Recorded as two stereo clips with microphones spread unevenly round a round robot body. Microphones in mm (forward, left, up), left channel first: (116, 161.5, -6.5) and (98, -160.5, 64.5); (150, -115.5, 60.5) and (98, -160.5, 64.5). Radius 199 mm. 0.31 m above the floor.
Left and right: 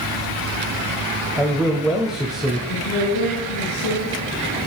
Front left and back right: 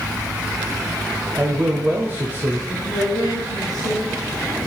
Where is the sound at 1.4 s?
165° left, 1.2 m.